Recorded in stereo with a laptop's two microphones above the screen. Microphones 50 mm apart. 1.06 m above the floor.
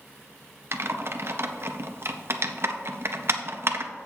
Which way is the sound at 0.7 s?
60° right (ahead or behind).